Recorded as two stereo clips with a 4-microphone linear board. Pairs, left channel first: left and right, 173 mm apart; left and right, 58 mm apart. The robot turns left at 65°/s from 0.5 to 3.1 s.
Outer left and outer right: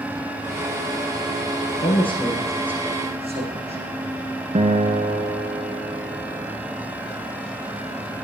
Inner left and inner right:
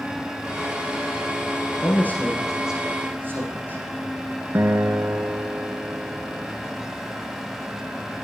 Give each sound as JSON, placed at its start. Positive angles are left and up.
{"t": 1.8, "sound": "a man speaking", "azimuth_deg": 50, "distance_m": 8.5}
{"t": 4.5, "sound": "a guitar", "side_deg": -40, "distance_m": 1.1}